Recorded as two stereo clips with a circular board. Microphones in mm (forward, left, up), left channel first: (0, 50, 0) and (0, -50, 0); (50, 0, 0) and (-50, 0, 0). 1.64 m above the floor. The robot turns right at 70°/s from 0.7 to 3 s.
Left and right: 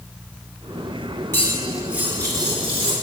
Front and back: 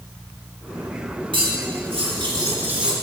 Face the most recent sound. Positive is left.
turn(degrees=-90)